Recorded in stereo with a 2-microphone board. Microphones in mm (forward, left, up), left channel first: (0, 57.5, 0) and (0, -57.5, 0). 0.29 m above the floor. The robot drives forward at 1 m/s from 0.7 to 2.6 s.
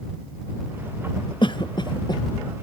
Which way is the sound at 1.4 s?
50° left (ahead or behind).